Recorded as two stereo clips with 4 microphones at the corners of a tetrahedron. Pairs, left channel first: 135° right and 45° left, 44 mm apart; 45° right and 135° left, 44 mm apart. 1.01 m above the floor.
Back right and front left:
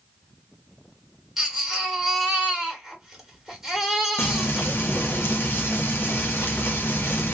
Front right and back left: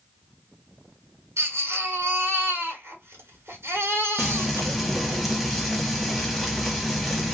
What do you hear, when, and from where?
1.4 s a baby crying: 125° left, 1.6 m
4.2 s frying: 140° right, 1.1 m